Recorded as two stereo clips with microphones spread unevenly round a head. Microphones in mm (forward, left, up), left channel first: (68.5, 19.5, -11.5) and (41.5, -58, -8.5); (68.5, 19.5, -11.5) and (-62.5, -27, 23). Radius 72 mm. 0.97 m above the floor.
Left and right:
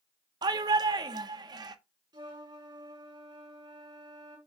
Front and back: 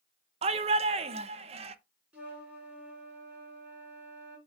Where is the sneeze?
I don't hear a sneeze.